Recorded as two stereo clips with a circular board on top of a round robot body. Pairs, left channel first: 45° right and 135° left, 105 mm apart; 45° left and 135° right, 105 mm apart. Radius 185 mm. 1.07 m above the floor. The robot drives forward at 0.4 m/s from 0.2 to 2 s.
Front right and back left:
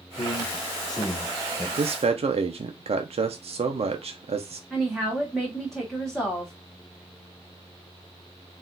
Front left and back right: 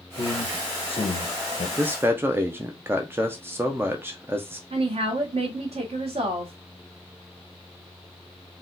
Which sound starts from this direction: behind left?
A man speaking, at 1.8 s.